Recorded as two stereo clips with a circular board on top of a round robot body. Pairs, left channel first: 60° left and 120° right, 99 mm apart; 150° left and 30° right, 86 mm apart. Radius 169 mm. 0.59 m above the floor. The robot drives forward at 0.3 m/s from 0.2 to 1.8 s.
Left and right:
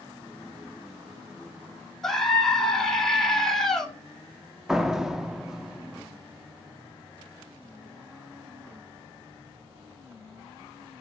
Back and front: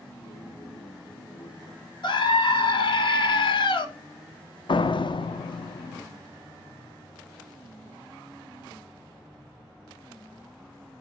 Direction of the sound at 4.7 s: 155° left.